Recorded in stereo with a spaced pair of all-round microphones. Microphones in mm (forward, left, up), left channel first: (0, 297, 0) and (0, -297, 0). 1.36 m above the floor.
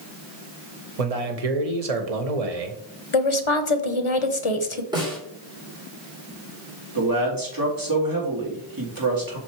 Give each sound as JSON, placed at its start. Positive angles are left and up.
{"t": 1.0, "sound": "a man speaking", "side_deg": -75, "distance_m": 1.1}
{"t": 3.1, "sound": "a woman speaking", "side_deg": 55, "distance_m": 1.0}
{"t": 4.9, "sound": "a snare drum", "side_deg": -5, "distance_m": 3.0}
{"t": 7.0, "sound": "a man speaking", "side_deg": -35, "distance_m": 2.0}